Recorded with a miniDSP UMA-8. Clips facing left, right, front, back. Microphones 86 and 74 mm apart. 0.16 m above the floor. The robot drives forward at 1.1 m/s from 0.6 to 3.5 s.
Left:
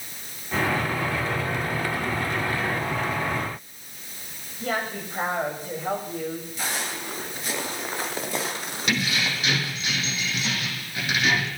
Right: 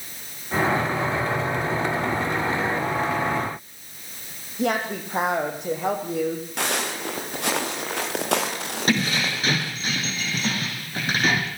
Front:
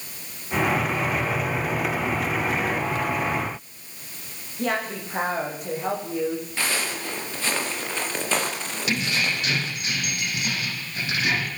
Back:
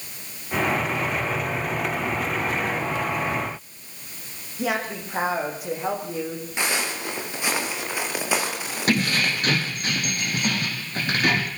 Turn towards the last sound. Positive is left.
turn(degrees=-140)